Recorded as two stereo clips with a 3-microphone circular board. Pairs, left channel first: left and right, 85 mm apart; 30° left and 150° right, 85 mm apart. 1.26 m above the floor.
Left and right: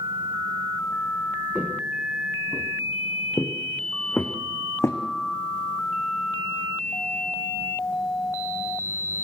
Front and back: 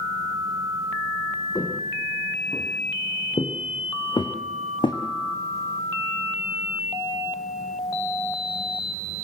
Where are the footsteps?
10° right, 6.5 m; by 5.0 s 40° left, 4 m.